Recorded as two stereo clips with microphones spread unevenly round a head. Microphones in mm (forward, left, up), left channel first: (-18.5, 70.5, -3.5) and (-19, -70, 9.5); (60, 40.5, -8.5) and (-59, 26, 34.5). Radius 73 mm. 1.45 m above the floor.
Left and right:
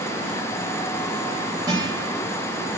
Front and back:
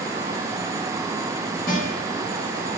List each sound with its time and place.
1.7 s a guitar: 25° right, 6 m